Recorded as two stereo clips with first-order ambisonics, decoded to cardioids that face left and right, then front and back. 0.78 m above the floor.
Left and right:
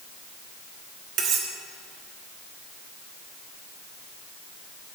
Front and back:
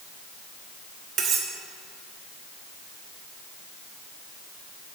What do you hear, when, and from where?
1.2 s cutlery clinking: 130° right, 0.9 m